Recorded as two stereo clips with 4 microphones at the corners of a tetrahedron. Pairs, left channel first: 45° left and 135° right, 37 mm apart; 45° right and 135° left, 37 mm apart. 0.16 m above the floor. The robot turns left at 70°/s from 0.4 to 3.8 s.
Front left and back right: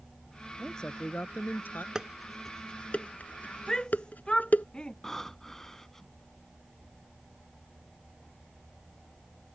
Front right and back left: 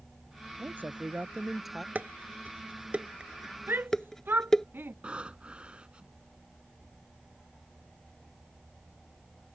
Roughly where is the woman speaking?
Behind left.